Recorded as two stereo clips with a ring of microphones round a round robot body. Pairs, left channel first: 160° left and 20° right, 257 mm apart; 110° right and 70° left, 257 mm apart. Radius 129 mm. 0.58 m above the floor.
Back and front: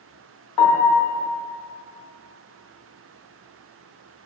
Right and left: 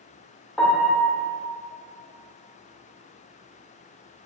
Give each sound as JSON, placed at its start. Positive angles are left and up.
{"t": 0.6, "sound": "a piano", "azimuth_deg": 160, "distance_m": 0.6}